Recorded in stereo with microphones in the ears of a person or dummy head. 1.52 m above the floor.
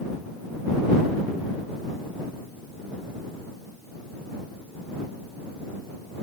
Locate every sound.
Only background noise.